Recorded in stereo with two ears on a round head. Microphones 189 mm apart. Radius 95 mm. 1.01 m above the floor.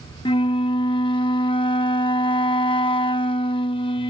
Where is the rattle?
No rattle in this recording.